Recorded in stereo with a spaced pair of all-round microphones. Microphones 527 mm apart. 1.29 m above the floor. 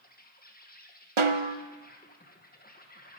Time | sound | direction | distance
0.0 | an insect | 15° left (ahead or behind) | 1.3 m
1.2 | a snare drum | 65° right (ahead or behind) | 0.8 m